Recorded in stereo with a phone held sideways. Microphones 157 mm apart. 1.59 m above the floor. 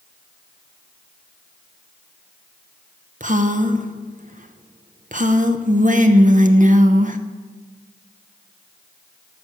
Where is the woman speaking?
55° right (ahead or behind), 0.8 m.